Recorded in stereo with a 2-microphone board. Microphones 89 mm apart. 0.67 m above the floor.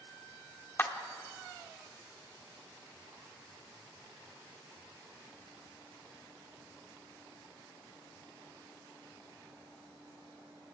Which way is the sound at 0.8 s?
25° left (ahead or behind).